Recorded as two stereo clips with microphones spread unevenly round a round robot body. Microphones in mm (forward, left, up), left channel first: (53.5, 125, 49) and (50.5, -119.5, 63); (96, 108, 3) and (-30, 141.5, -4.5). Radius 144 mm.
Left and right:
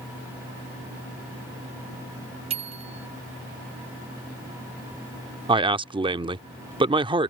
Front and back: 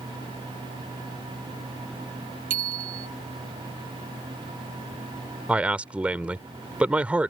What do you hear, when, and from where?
2.5 s a bicycle bell: 160° right
5.5 s a man speaking: 135° right